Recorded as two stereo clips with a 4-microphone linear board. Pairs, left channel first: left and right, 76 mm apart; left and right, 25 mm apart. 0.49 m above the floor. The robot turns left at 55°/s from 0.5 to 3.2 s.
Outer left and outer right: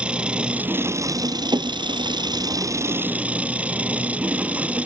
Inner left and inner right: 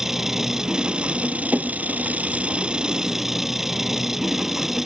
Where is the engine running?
15° right; by 4.9 s 160° right.